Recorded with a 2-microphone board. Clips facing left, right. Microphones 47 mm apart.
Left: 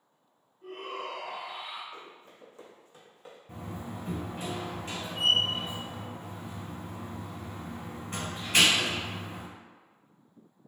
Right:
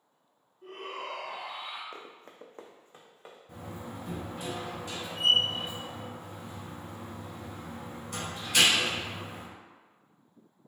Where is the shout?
5° right (ahead or behind), 1.8 m; by 1.8 s 10° left (ahead or behind), 2 m.